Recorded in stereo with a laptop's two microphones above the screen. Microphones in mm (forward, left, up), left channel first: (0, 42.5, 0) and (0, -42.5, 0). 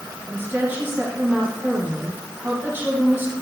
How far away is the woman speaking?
About 6.5 m.